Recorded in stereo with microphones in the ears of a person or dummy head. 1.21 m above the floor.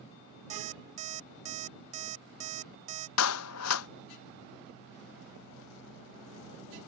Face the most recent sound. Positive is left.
turn(degrees=85)